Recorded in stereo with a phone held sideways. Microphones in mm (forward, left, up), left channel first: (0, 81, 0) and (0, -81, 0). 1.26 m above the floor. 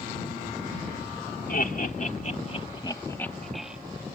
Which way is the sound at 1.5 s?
65° left (ahead or behind).